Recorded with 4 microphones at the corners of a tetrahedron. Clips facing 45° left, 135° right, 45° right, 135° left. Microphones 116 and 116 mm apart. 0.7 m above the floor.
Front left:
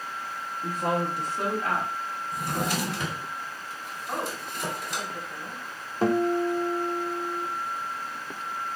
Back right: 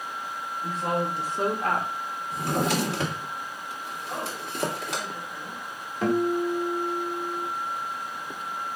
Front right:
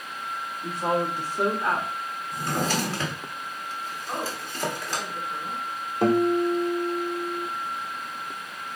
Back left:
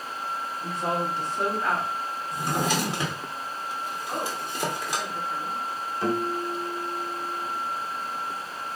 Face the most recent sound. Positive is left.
turn(degrees=-10)